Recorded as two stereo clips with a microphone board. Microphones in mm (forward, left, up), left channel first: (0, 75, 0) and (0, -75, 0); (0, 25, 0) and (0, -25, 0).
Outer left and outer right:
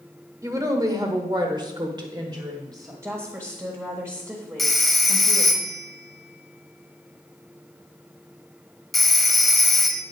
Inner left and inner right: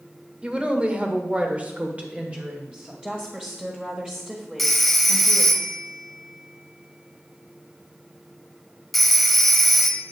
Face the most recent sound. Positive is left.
turn(degrees=0)  # may be behind; listen again after turning